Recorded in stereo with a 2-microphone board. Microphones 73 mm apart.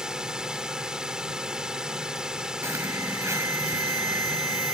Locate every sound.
0.0 s a drone: 10° right (ahead or behind)
2.6 s an alarm: 40° right (ahead or behind)